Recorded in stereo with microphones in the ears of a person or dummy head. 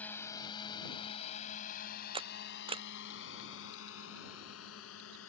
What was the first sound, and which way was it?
A drone, 10° left (ahead or behind).